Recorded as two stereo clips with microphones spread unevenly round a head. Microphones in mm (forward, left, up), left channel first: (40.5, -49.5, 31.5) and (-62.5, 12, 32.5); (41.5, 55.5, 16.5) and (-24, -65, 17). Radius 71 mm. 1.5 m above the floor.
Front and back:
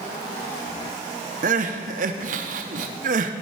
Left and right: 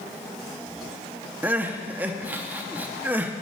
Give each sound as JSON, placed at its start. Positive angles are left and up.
{"t": 1.4, "sound": "crying", "azimuth_deg": 165, "distance_m": 0.6}